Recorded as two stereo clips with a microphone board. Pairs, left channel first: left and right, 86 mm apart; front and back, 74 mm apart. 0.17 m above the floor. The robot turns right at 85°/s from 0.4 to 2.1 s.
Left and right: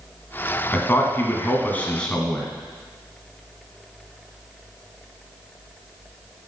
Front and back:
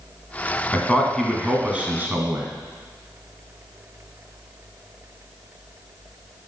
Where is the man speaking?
45° left, 1.5 m; by 2.5 s 160° left, 1.5 m.